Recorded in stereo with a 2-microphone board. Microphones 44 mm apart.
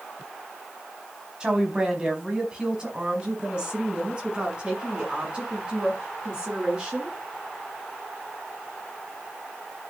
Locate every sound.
1.4 s a woman speaking: 20° right (ahead or behind), 3.5 m; by 7.2 s 25° right (ahead or behind), 6.5 m